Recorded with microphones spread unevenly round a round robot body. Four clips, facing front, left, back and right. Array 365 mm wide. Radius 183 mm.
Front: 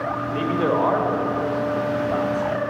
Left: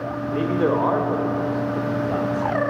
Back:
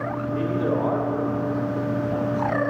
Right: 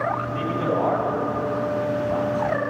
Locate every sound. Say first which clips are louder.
0.3 s a man speaking: left 3 dB, front 2 dB; 60° left, 1.8 m; by 2.7 s 35° left, 3.5 m